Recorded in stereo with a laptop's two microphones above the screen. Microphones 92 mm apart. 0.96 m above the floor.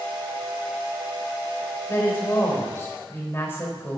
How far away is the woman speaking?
About 4 m.